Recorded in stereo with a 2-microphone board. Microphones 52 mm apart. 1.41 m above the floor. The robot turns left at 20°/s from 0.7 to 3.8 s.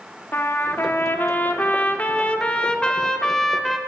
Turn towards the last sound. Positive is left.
turn(degrees=0)